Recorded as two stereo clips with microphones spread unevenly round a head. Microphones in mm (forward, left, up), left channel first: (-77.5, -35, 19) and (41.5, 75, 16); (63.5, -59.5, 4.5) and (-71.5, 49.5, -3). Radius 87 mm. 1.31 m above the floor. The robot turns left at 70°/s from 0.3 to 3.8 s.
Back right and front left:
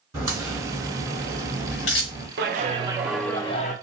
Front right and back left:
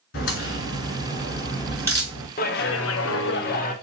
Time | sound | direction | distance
0.1 | a crack | 30° right | 3.5 m
2.4 | a clap | 10° left | 0.7 m